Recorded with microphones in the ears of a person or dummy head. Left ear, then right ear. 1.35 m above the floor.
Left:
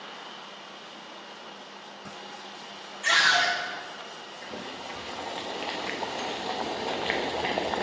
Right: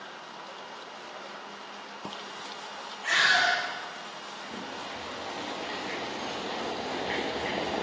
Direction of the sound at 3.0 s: 80° left.